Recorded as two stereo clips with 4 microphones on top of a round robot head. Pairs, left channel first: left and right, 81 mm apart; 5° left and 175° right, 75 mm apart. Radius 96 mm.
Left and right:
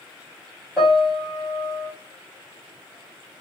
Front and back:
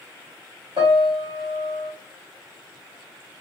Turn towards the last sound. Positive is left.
turn(degrees=-175)